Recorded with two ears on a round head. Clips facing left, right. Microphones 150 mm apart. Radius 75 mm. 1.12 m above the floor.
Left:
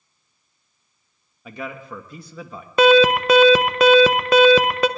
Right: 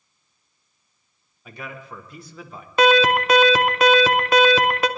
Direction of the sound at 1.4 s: 65° left (ahead or behind).